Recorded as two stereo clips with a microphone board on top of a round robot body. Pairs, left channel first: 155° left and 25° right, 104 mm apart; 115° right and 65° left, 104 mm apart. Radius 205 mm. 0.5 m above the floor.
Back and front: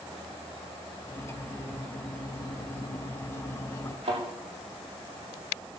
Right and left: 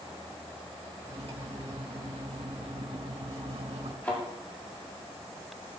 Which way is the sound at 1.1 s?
95° left.